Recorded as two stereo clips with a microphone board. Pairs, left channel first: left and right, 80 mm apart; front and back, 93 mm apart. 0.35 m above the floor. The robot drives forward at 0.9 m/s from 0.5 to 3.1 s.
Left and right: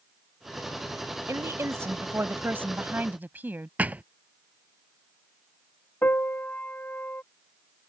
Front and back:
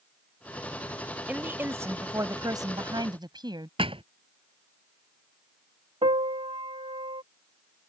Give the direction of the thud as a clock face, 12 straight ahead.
5 o'clock.